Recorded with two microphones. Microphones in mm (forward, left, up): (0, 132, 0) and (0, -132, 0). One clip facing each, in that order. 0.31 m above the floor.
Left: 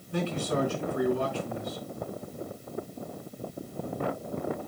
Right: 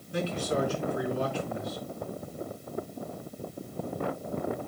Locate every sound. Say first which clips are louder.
0.1 s a man speaking: even; 60° left (ahead or behind), 4.5 m